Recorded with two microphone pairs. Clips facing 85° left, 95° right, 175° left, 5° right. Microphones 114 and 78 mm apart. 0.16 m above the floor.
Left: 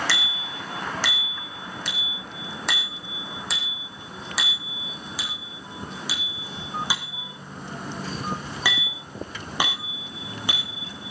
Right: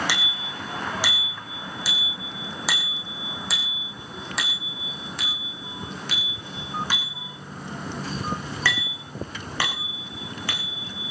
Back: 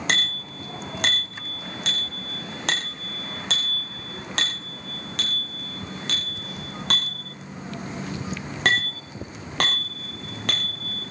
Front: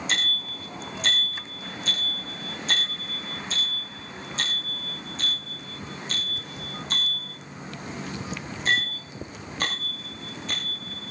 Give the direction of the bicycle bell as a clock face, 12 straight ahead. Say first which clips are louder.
Even, back 6 dB; 6 o'clock.